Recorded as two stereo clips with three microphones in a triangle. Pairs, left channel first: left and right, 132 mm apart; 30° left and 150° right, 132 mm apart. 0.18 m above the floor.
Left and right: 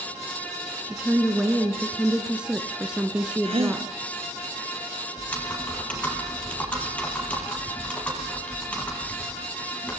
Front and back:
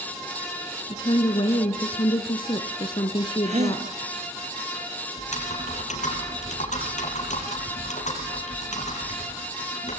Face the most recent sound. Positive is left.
turn(degrees=10)